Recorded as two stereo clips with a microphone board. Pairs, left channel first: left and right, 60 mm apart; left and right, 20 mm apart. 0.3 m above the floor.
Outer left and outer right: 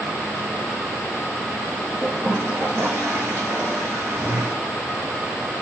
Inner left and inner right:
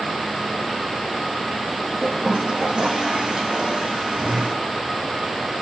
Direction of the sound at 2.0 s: 40° right (ahead or behind).